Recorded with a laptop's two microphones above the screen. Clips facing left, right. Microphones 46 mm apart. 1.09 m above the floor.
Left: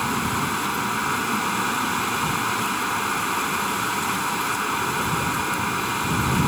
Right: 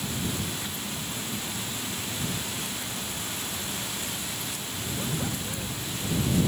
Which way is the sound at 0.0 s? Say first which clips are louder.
Left 9 dB; 80° left.